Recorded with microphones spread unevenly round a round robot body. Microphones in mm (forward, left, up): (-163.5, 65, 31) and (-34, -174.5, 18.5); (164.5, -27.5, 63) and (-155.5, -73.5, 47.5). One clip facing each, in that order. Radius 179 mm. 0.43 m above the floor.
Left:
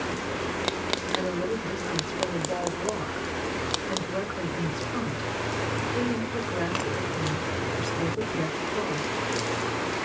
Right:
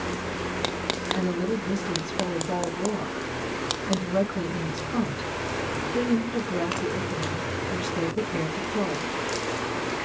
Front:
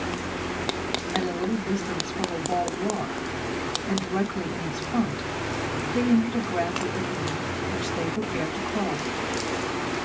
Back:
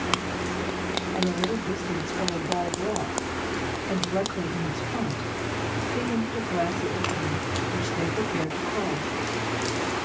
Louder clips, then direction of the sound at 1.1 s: Right 3 dB, front 1 dB; 35° right.